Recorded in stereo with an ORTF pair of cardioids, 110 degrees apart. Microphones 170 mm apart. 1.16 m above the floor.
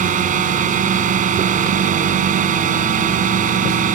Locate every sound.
0.0 s a drone: 50° right